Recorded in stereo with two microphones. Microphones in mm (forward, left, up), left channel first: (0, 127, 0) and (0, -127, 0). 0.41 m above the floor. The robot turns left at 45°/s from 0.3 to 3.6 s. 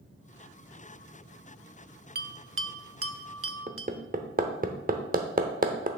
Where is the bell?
40° right (ahead or behind), 0.5 m; by 3.9 s 55° right (ahead or behind), 0.5 m.